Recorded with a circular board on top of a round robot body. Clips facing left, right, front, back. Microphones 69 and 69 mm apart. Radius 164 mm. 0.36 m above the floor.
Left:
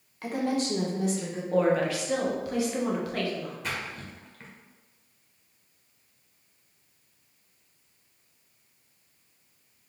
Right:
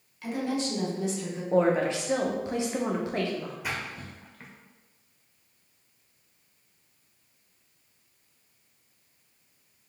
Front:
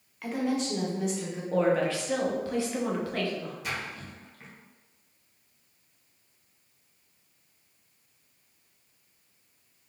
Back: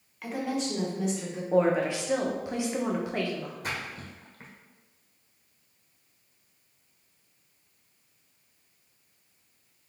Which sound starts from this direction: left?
A woman speaking, at 0.2 s.